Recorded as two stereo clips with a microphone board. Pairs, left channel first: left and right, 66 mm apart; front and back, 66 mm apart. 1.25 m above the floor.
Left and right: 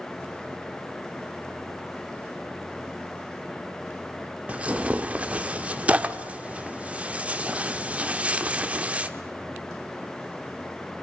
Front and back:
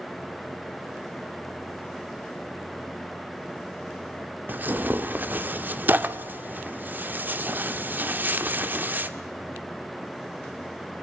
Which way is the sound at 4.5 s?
140° right.